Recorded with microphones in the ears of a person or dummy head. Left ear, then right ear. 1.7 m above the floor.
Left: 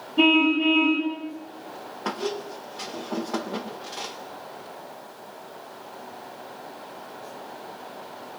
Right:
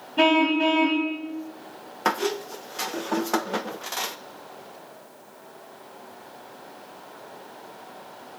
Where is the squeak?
45° right (ahead or behind), 0.8 m.